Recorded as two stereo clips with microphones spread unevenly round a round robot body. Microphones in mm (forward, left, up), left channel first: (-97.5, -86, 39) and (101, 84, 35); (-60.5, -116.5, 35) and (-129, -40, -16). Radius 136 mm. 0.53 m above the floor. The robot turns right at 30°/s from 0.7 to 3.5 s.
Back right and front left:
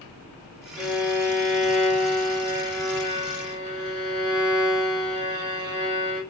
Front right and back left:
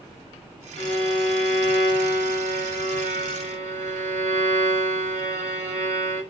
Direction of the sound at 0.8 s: 50° right.